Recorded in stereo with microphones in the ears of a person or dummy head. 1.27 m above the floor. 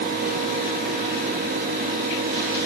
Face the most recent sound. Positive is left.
No sound to turn to.